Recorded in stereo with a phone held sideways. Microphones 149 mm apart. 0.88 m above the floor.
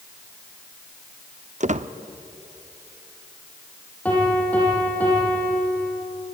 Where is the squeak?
50° right (ahead or behind), 0.7 m.